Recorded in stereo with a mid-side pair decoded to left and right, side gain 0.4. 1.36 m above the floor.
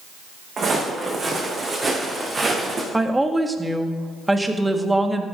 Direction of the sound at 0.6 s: 45° right.